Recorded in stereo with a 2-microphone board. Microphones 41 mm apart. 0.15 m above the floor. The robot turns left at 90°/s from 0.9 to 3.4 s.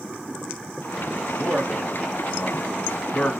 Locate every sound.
1.4 s a man speaking: 30° right (ahead or behind), 1.8 m; by 3.3 s 35° left (ahead or behind), 1.8 m